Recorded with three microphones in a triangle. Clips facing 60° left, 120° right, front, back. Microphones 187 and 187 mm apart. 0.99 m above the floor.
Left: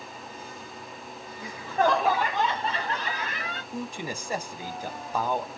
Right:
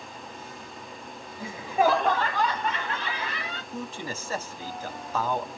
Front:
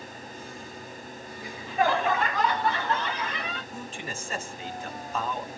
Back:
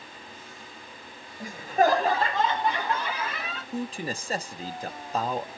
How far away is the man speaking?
About 0.8 m.